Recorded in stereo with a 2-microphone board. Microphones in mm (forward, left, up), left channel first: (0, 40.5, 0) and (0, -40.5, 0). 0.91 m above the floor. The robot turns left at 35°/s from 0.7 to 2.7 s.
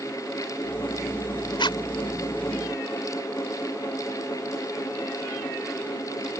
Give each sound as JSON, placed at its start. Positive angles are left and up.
{"t": 1.6, "sound": "a zipper", "side_deg": 80}